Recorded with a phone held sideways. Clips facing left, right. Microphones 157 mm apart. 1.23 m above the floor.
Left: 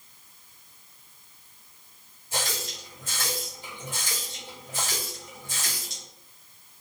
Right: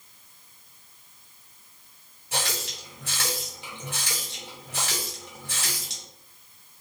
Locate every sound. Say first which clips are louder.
2.3 s a running tap: right 1 dB; 70° right (ahead or behind), 1.1 m